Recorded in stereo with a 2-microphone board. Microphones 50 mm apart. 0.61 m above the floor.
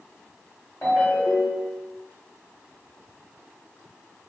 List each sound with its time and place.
0.8 s a ringtone: 45° left (ahead or behind), 1.4 m